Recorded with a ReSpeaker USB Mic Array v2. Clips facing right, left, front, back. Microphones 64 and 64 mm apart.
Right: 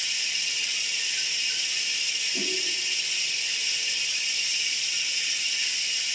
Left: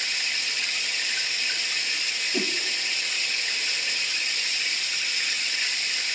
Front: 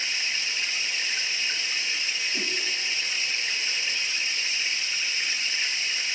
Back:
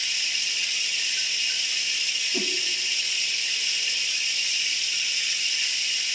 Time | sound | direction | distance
0.0 | running water | 55° left | 0.9 m
2.3 | a whoosh | 110° left | 1.3 m